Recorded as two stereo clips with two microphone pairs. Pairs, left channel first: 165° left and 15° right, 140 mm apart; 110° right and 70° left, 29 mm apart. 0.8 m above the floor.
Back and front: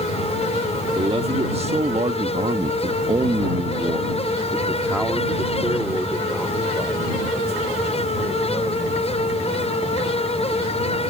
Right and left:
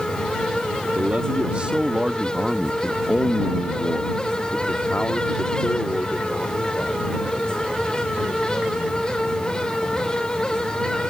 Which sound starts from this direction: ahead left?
A man speaking, at 0.9 s.